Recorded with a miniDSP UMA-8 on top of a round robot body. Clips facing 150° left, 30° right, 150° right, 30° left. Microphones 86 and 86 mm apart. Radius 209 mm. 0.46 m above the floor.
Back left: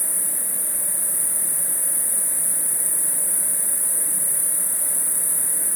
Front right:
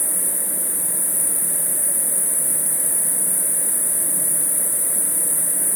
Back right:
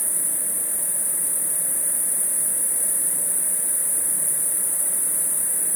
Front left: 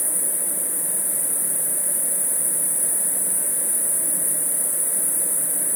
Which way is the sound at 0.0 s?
70° left.